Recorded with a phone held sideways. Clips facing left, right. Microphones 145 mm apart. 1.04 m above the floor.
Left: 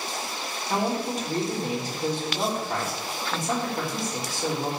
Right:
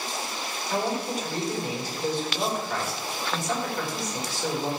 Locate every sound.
0.7 s a man speaking: 45° left (ahead or behind), 3 m